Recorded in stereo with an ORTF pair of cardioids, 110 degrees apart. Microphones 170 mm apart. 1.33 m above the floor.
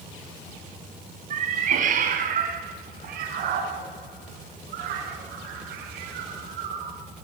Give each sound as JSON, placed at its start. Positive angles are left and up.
{"t": 1.3, "sound": "a cat meowing", "azimuth_deg": -50, "distance_m": 4.5}